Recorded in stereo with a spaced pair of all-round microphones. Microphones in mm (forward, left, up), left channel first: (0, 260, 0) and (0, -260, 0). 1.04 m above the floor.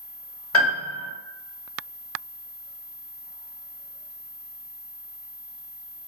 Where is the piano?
25° left (ahead or behind), 0.9 m.